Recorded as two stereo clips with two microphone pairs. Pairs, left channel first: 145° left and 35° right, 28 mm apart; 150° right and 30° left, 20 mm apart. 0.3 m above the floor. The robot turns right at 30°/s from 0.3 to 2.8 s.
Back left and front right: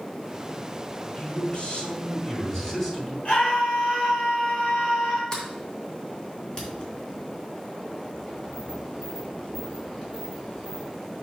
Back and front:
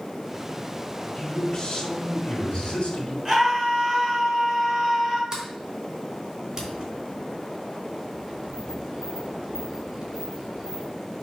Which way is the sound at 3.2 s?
105° left.